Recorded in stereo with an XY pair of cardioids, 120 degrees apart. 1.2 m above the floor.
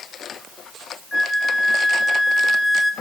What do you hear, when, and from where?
1.1 s a flute: 15° left, 0.9 m